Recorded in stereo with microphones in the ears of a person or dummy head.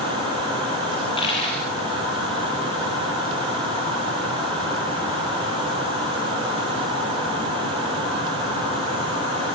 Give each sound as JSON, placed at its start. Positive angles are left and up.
{"t": 0.9, "sound": "a dropped coin", "side_deg": 35, "distance_m": 7.0}